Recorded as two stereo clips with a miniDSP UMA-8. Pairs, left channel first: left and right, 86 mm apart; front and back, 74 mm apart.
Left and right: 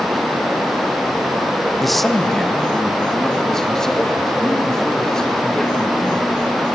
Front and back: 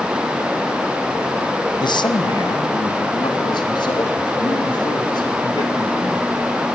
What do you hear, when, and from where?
1.8 s a man speaking: straight ahead, 1.2 m; by 6.6 s 5° left, 6 m